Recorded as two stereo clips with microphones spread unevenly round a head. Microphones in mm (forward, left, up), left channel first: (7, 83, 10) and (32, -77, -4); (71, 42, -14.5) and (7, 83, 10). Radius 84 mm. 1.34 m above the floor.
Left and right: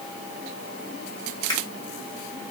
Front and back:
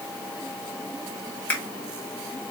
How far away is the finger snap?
About 3 m.